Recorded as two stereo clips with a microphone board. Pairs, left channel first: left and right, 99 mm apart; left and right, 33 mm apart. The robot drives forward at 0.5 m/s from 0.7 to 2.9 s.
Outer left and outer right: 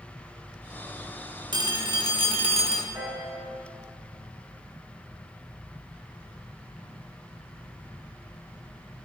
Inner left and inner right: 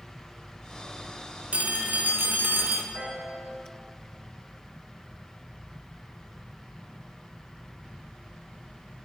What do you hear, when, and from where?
1.5 s a phone ringing: 45° right (ahead or behind), 1.1 m; by 2.8 s 85° right, 0.8 m
2.9 s a piano: 45° right (ahead or behind), 4 m